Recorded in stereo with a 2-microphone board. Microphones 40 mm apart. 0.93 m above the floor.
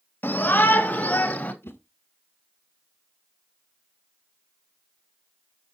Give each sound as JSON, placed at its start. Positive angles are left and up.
{"t": 0.2, "sound": "a shout", "side_deg": 55, "distance_m": 1.9}
{"t": 1.6, "sound": "a whoosh", "side_deg": 70, "distance_m": 1.7}